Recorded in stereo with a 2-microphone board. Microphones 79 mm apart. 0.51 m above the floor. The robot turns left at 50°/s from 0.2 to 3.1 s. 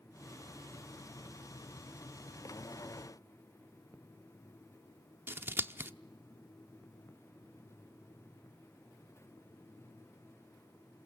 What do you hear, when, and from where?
5.3 s scissors: 30° right (ahead or behind), 0.7 m